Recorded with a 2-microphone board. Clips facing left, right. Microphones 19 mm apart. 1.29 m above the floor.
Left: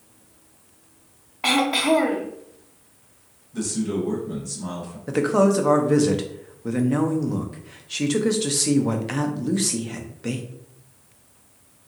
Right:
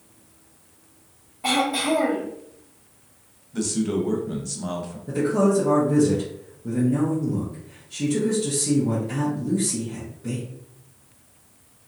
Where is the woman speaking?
70° left (ahead or behind), 0.5 m.